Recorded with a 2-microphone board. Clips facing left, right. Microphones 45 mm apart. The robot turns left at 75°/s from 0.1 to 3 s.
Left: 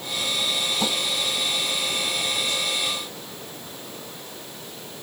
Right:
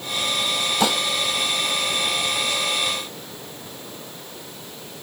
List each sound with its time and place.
0.8 s dishes clattering: 80° right; by 1.0 s 65° right (ahead or behind)